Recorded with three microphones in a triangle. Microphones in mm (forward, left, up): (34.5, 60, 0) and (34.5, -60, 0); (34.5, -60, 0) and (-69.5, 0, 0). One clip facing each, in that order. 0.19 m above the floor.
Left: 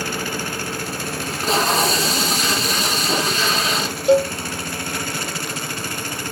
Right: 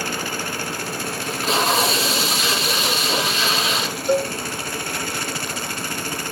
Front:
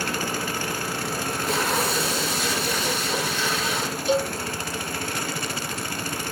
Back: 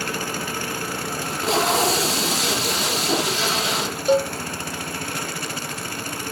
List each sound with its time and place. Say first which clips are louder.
1.2 s tape being pulled: left 1 dB, back 6 dB; 145° left, 2.5 m
4.1 s a cowbell: left 5 dB, back 4 dB; 105° left, 4 m